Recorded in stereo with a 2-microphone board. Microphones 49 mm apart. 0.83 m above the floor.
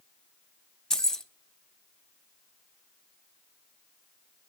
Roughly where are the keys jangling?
Centre.